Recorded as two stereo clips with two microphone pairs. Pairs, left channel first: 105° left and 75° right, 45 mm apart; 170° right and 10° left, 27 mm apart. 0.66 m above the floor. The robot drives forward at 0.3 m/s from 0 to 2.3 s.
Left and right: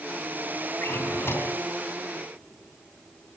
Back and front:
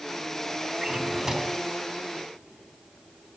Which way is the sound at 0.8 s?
80° left.